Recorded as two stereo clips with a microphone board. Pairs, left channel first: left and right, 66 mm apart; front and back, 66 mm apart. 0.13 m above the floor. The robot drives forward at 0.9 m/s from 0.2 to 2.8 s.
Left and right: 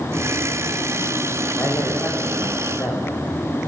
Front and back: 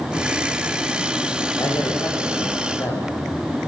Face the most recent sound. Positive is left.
turn(degrees=45)